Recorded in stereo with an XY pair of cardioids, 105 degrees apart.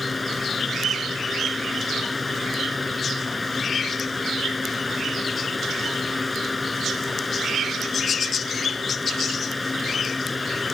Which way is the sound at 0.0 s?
25° left.